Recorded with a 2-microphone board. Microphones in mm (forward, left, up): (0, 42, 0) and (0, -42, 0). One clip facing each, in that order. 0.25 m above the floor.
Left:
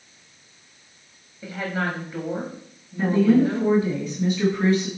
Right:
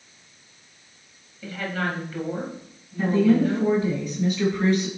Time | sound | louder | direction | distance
1.4 | a woman speaking | left 1 dB | 20° left (ahead or behind) | 1.1 m
3.0 | a woman speaking | left 1 dB | centre (ahead or behind) | 1.9 m